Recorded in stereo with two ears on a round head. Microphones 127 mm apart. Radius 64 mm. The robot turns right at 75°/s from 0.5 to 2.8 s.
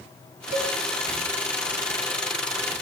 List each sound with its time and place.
0.5 s a cowbell: 70° right (ahead or behind), 0.7 m; by 0.7 s 55° right (ahead or behind), 0.7 m